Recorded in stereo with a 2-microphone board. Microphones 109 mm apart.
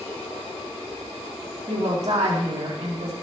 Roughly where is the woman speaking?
Right.